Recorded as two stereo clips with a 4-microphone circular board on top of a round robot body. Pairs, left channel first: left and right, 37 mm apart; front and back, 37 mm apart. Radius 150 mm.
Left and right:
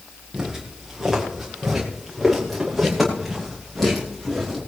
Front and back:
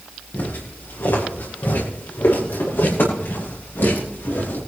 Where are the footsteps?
5° right, 5.5 m; by 4.6 s 5° left, 8 m.